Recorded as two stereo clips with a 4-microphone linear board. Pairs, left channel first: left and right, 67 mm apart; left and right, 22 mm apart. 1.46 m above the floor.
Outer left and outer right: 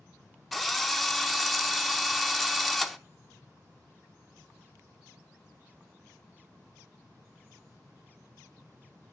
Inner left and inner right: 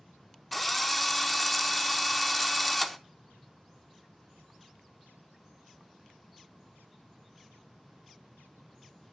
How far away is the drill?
About 0.7 m.